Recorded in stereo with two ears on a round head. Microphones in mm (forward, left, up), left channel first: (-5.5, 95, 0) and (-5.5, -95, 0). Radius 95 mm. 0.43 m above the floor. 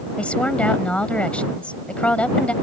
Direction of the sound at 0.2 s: 5° left (ahead or behind).